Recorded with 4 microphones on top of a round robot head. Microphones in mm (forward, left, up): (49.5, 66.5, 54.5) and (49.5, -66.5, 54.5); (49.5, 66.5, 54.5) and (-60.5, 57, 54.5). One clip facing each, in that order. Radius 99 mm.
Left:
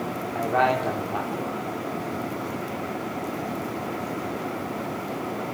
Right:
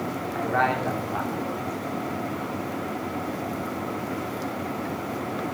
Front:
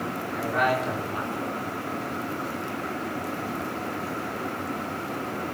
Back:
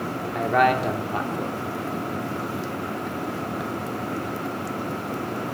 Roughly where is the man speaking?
Behind.